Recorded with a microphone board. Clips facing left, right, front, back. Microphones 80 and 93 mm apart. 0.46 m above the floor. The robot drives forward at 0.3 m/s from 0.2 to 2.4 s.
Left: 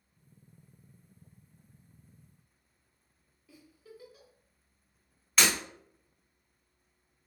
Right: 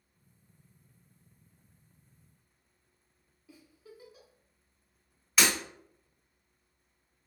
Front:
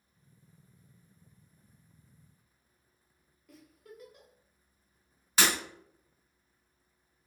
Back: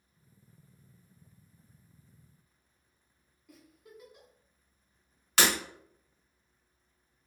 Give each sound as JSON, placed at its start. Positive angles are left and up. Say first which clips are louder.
{"t": 3.5, "sound": "a giggle", "louder": "left 1 dB, front 2 dB", "azimuth_deg": -120, "distance_m": 1.0}
{"t": 5.4, "sound": "breaking glass", "louder": "even, back 1 dB", "azimuth_deg": -175, "distance_m": 0.8}